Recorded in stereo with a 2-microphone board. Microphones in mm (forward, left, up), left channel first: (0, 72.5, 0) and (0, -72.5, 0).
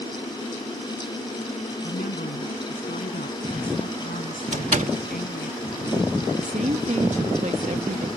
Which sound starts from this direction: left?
A woman speaking, at 1.8 s.